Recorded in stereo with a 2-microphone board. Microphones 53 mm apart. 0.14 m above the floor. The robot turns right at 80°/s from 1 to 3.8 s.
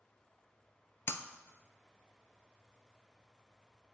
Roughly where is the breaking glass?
Left.